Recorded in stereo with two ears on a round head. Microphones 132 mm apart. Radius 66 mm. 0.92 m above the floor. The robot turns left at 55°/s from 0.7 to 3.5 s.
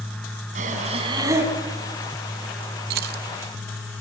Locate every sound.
0.6 s breathing: 125° right, 4.5 m; by 1.5 s 170° right, 4.5 m
2.9 s keys jangling: 70° right (ahead or behind), 0.7 m